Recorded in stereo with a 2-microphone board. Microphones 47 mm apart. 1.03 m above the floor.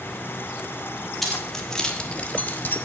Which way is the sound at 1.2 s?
5° left (ahead or behind).